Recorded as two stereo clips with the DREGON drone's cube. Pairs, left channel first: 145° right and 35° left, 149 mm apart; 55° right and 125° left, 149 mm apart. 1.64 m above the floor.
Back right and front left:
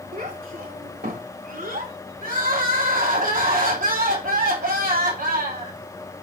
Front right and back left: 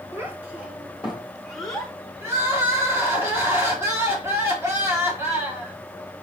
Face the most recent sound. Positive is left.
turn(degrees=50)